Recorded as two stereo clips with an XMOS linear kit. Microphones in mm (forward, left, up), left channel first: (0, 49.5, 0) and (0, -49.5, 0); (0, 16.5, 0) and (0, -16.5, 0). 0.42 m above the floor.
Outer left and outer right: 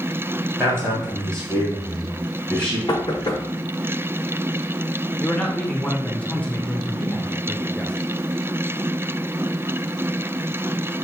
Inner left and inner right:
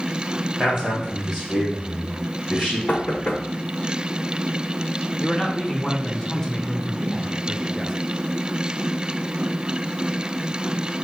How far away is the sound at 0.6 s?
About 2.5 m.